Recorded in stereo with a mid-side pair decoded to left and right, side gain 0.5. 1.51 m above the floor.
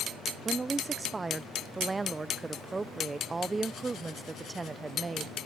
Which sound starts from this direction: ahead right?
A woman speaking, at 0.5 s.